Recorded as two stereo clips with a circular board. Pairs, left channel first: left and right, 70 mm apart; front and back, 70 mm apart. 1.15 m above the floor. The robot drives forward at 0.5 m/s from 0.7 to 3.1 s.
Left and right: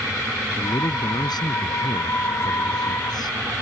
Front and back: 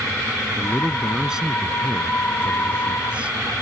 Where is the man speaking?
100° left; by 3.4 s 105° left.